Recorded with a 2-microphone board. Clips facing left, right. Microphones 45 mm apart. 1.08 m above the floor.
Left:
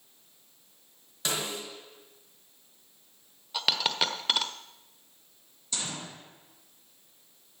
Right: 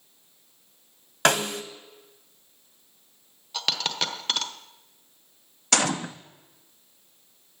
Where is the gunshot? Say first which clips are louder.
Right 13 dB; 80° right, 0.6 m.